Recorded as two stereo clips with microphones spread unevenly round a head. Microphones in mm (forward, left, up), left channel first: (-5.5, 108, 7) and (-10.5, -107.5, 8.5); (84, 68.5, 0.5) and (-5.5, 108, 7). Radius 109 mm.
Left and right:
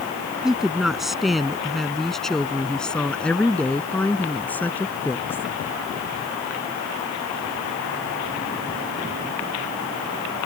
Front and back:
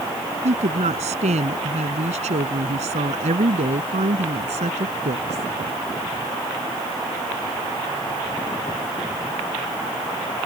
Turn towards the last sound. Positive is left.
turn(degrees=170)